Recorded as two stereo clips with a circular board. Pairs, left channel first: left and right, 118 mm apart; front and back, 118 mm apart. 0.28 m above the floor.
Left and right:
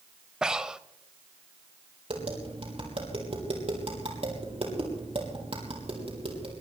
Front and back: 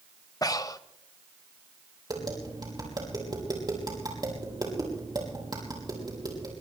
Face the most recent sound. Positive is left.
turn(degrees=-125)